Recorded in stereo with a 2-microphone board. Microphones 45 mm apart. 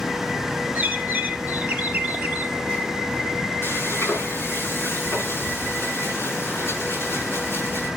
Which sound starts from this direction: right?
A bird, at 0.8 s.